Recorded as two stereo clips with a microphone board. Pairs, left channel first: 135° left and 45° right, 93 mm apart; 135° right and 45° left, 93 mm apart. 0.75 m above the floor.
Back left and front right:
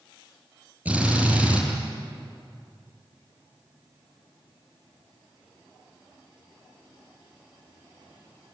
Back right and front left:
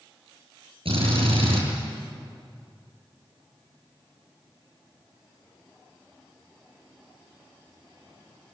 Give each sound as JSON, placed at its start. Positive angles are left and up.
{"t": 0.8, "sound": "a drill", "azimuth_deg": 30, "distance_m": 9.5}